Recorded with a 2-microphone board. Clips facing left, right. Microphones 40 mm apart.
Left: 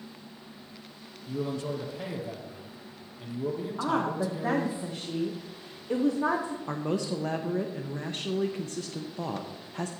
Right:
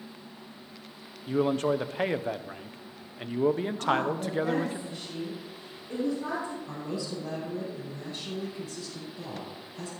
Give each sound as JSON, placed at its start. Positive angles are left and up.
{"t": 1.3, "sound": "a man speaking", "side_deg": -55, "distance_m": 0.5}
{"t": 3.8, "sound": "a woman speaking", "side_deg": 70, "distance_m": 1.0}
{"t": 6.7, "sound": "a man speaking", "side_deg": 60, "distance_m": 0.8}